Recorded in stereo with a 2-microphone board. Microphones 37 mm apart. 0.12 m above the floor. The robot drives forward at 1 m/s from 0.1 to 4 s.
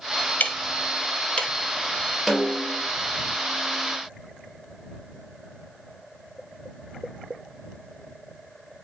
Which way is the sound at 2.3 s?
Centre (ahead or behind).